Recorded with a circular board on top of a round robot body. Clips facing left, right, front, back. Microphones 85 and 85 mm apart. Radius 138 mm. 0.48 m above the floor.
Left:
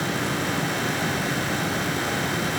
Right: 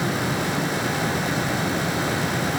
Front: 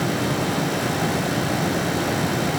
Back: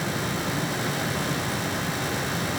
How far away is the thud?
I don't hear a thud.